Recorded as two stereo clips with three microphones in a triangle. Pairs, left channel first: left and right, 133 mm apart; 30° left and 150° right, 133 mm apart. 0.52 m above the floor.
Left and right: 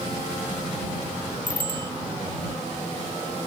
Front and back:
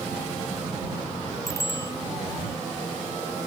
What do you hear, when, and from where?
1.5 s a bicycle bell: 35° right